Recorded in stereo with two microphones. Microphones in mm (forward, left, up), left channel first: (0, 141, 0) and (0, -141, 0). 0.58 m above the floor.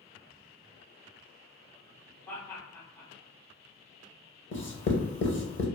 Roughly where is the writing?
Left.